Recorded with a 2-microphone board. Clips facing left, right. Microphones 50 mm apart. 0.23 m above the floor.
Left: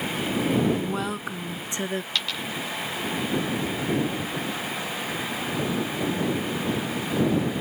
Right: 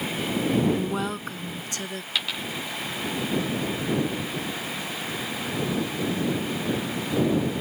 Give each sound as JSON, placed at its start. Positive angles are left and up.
{"t": 0.8, "sound": "a woman speaking", "side_deg": -10}
{"t": 2.1, "sound": "a dropped coin", "side_deg": -10}